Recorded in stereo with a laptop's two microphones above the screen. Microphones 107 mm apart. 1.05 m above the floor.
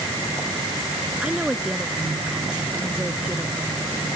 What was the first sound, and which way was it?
A woman speaking, 10° right (ahead or behind).